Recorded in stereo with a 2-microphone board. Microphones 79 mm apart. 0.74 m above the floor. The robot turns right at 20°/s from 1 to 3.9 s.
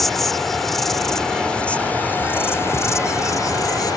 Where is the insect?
5° left; by 4.0 s 60° left.